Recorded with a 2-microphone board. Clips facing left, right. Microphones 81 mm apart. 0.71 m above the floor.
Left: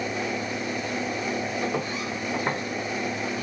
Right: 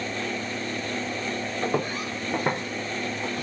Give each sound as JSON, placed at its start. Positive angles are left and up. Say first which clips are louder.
{"t": 1.6, "sound": "footsteps", "louder": "right 1 dB", "side_deg": -40, "distance_m": 1.6}